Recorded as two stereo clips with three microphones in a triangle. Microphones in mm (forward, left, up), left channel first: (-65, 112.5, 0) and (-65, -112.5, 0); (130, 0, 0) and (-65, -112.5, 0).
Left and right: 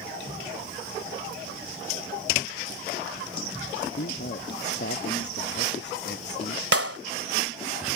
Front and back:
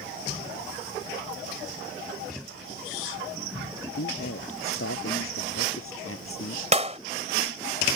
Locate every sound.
4.0 s a man speaking: 50° left
6.7 s a clap: 90° right